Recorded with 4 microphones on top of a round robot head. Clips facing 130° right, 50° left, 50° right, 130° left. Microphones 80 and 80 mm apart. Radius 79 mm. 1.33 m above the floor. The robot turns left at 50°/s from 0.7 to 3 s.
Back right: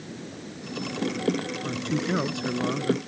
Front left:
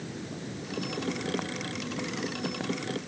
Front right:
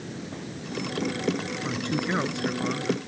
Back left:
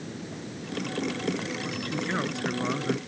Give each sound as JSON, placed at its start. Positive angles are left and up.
{"t": 1.6, "sound": "a man speaking", "azimuth_deg": -100}